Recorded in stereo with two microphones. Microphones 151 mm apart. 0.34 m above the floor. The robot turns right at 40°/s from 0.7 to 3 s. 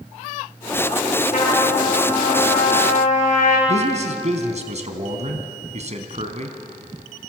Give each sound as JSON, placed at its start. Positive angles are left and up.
{"t": 1.3, "sound": "a trumpet", "azimuth_deg": 60, "distance_m": 7.0}
{"t": 3.7, "sound": "a man speaking", "side_deg": -50, "distance_m": 3.0}